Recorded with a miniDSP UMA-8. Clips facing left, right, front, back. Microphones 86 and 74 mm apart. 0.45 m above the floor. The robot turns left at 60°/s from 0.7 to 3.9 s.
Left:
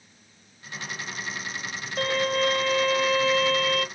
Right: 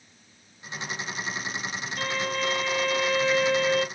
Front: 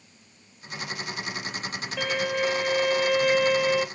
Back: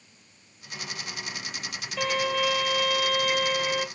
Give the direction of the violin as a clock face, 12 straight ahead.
9 o'clock.